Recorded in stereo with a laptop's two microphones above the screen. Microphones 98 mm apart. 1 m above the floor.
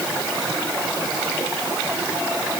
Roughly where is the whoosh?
I don't hear a whoosh.